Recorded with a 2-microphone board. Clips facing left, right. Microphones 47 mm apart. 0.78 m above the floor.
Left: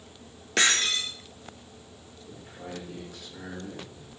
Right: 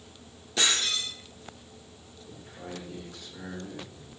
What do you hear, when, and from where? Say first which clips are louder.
0.6 s breaking glass: left 3 dB; 65° left (ahead or behind), 2.5 m
2.3 s a man speaking: left 1 dB; 20° left (ahead or behind), 8.5 m